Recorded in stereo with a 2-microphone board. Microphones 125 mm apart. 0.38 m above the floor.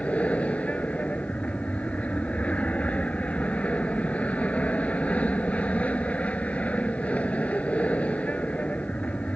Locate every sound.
0.0 s an aircraft: 10° left (ahead or behind)